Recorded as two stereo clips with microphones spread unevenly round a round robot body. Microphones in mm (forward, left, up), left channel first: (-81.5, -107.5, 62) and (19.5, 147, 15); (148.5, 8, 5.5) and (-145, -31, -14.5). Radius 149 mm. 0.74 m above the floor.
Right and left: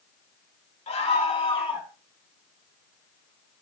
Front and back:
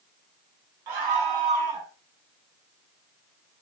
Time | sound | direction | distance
0.9 | a scream | straight behind | 6 m